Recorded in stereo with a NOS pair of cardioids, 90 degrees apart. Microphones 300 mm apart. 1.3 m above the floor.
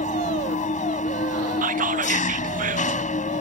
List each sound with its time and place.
0.0 s an engine running: 25° left
1.6 s whispering: 25° right